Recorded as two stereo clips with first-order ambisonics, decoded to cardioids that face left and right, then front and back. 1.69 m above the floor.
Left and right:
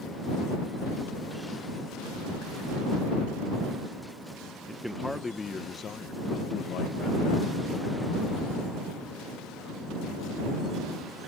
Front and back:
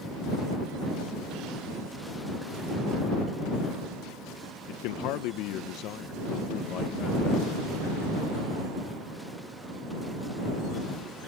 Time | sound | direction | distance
4.7 | a man speaking | 5° right | ?